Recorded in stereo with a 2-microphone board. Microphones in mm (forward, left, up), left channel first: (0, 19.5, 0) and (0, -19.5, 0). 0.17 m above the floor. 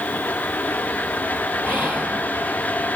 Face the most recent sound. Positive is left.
turn(degrees=-55)  # may be behind; listen again after turning